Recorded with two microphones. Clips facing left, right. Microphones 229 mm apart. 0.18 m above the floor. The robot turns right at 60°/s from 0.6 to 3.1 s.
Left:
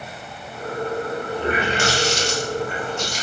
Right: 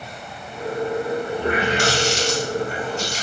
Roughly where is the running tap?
Right.